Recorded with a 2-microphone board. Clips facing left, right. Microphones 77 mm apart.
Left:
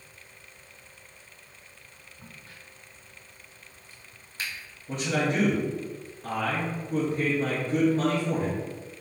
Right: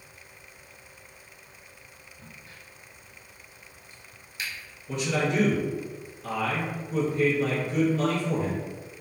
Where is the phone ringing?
I don't hear a phone ringing.